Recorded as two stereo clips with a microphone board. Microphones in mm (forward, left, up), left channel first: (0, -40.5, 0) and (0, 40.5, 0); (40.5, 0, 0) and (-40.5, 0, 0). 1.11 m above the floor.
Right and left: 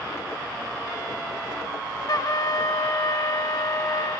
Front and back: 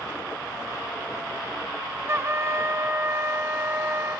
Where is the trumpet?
125° right, 1.2 m.